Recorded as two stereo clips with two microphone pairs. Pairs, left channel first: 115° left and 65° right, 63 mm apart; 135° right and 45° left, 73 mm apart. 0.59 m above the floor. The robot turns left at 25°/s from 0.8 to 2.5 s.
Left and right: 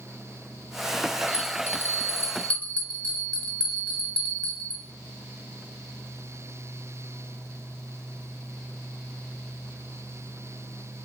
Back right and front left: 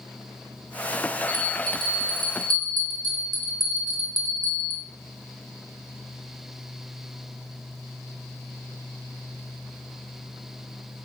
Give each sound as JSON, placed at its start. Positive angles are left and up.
{"t": 1.3, "sound": "a bell", "azimuth_deg": 80, "distance_m": 0.7}